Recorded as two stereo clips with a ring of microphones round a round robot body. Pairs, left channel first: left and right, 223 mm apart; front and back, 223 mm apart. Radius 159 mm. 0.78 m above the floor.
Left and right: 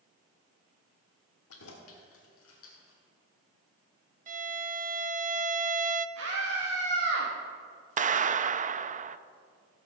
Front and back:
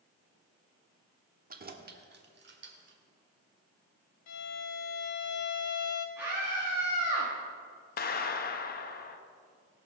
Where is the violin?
30° right, 0.6 m.